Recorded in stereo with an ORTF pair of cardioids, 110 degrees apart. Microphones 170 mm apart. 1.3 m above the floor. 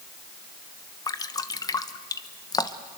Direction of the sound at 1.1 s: 20° left.